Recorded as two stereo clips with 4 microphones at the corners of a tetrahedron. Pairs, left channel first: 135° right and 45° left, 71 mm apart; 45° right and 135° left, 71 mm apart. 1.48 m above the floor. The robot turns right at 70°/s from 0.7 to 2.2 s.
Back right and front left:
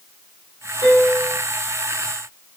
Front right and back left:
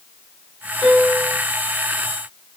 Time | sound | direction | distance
0.8 | a piano | 120° right | 1.0 m